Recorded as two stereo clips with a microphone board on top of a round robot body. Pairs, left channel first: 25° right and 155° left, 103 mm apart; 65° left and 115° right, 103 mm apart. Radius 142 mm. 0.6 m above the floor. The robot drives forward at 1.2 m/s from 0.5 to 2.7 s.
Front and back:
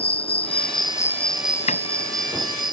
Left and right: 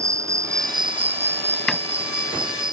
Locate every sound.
0.0 s an insect: 50° right; by 2.7 s 155° right
1.7 s a door slam: 20° right